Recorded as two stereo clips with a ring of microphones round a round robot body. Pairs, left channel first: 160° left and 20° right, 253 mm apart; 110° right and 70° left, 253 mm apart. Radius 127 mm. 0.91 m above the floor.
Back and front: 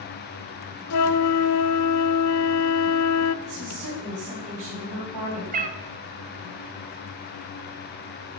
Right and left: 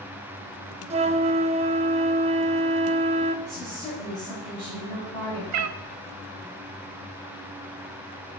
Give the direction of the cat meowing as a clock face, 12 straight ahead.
11 o'clock.